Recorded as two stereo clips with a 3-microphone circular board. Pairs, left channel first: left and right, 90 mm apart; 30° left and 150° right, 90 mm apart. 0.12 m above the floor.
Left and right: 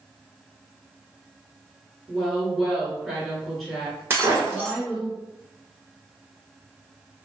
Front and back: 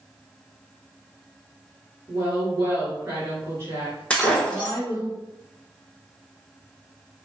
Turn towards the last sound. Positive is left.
turn(degrees=-40)